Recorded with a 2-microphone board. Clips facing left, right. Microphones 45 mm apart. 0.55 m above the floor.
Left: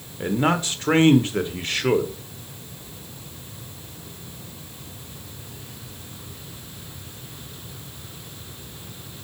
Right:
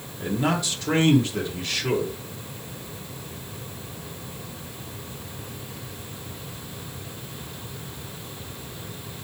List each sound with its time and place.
0.2 s a man speaking: 35° left (ahead or behind), 1.4 m